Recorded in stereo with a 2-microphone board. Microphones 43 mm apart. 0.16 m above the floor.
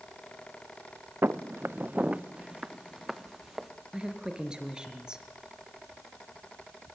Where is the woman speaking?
15° right (ahead or behind), 3 m.